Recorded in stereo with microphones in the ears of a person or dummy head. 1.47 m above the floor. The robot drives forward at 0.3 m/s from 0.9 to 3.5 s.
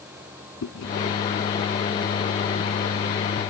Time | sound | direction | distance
0.6 | chewing | 70° left (ahead or behind) | ?